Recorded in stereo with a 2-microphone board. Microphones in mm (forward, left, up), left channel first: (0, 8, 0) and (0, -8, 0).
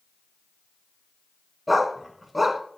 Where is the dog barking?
10° right (ahead or behind), 0.8 m.